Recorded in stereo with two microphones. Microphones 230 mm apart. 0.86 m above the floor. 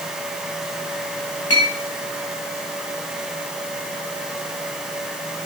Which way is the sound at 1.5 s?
75° left (ahead or behind).